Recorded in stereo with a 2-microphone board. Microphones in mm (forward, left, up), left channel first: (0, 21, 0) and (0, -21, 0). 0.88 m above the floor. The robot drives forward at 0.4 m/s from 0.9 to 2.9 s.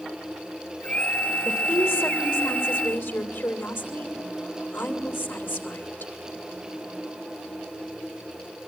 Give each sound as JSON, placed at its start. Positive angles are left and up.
{"t": 1.4, "sound": "a woman speaking", "side_deg": 85, "distance_m": 2.5}